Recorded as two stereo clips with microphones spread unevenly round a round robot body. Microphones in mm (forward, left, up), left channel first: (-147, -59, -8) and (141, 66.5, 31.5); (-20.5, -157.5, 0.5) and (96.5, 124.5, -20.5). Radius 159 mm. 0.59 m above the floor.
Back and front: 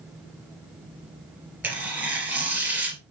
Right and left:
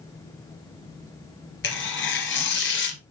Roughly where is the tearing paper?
Ahead right.